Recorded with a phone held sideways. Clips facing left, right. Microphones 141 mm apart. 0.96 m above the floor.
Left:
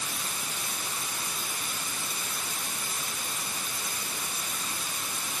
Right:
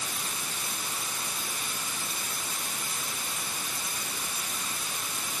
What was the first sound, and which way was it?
Only background noise.